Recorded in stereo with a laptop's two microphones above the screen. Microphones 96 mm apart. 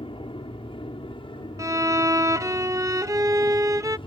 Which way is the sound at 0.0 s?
60° left (ahead or behind).